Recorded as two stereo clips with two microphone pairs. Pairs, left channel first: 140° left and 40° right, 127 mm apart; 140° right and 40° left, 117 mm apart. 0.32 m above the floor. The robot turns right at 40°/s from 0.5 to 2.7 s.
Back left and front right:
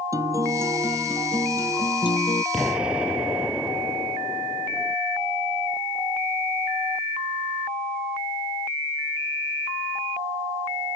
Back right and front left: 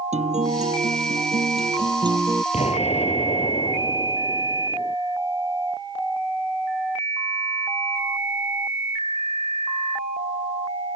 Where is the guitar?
25° left; by 2.4 s 105° left.